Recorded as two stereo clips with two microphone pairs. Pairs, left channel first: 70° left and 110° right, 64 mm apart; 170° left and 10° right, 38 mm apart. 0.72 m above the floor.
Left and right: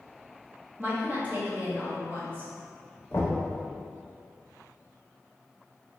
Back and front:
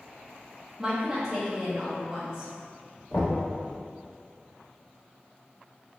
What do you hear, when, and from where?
0.8 s a woman speaking: 70° right, 1.1 m
3.1 s knocking: 120° left, 1.1 m